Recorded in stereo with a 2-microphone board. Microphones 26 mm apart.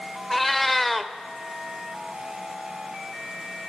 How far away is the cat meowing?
About 0.6 m.